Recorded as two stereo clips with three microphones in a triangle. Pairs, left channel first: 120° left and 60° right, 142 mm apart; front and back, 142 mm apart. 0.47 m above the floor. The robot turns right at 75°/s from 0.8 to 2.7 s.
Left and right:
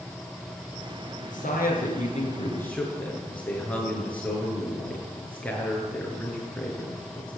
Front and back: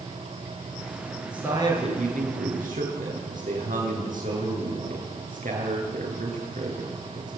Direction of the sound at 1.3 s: 95° left.